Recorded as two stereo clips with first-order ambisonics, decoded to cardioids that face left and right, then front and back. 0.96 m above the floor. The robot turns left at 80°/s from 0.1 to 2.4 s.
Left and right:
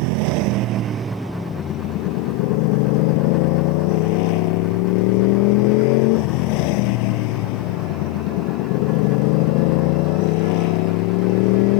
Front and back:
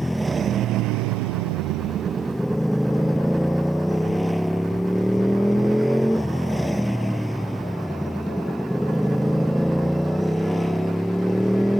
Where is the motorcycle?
85° right; by 11.8 s 90° left.